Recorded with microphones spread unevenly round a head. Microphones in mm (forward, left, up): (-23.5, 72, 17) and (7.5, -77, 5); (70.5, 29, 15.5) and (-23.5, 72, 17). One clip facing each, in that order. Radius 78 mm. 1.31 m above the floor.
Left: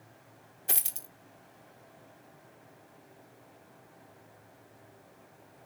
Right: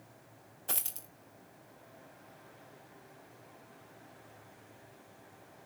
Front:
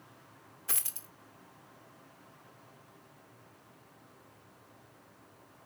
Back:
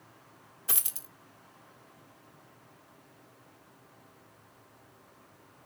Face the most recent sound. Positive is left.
turn(degrees=135)